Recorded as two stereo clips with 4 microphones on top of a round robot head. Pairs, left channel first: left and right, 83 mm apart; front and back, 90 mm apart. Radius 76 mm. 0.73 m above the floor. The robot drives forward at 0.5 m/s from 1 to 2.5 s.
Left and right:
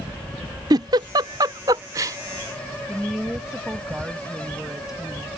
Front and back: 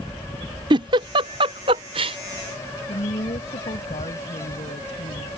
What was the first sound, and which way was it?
A giggle, 135° right.